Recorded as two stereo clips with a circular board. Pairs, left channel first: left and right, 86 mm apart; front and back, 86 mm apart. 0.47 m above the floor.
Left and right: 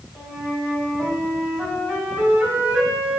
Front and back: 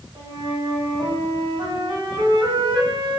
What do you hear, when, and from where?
0.1 s a flute: 165° right, 1.8 m